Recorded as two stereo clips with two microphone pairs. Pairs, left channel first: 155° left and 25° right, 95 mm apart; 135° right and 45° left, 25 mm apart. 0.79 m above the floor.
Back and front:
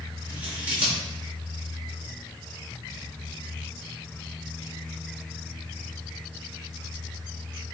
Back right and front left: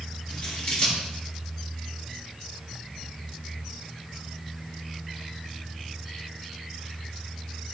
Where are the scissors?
100° right, 1.4 m.